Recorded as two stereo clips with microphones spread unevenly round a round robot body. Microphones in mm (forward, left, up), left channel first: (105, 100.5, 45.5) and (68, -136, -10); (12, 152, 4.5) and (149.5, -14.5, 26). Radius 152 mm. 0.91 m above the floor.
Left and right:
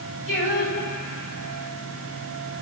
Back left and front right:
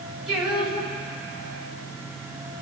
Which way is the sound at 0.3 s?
35° left.